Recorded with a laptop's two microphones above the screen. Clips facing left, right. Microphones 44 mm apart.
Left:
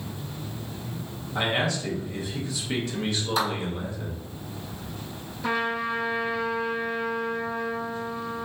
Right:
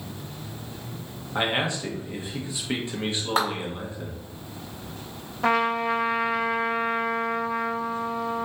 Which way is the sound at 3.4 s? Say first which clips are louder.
Right 2 dB; 50° right (ahead or behind).